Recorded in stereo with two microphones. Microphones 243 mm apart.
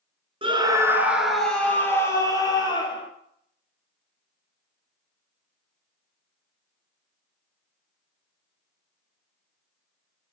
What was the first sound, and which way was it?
A scream, 25° right (ahead or behind).